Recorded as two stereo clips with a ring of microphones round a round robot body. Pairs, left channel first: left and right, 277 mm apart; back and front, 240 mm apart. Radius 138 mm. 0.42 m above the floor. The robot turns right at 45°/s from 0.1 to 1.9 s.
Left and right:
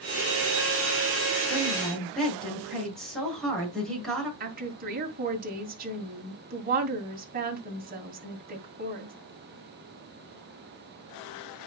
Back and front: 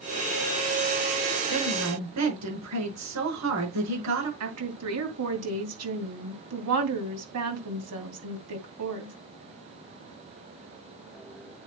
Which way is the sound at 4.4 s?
30° right.